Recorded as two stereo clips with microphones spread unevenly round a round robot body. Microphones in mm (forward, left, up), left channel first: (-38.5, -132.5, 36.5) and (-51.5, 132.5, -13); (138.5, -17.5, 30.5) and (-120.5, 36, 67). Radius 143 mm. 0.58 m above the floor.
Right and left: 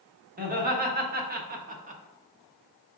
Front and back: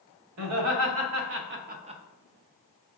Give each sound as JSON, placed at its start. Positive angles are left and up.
{"t": 0.4, "sound": "laughter", "azimuth_deg": 145, "distance_m": 1.5}